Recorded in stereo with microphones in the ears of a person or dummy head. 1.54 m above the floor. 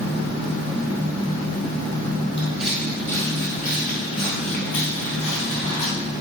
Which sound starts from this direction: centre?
Footsteps, at 2.4 s.